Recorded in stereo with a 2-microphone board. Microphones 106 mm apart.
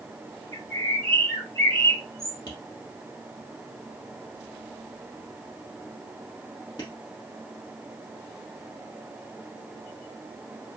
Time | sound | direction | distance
0.5 | a bird | 35° left (ahead or behind) | 3.5 m
2.5 | tapping | 40° left (ahead or behind) | 3 m